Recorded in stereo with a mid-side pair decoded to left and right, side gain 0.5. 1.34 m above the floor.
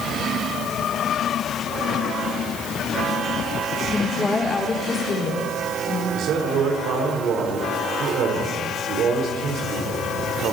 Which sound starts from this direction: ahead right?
A man speaking, at 6.1 s.